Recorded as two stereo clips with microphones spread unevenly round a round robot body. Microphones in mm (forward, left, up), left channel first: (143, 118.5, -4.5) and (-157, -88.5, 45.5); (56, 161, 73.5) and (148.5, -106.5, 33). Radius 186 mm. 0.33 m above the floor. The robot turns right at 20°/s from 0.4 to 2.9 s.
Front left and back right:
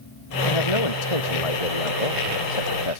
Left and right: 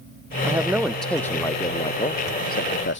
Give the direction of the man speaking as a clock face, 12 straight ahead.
12 o'clock.